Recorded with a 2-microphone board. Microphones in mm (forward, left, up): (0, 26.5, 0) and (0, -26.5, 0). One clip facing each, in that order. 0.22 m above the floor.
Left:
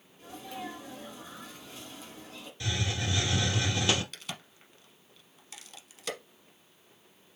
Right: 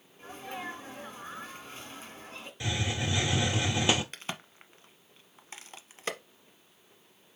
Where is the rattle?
I don't hear a rattle.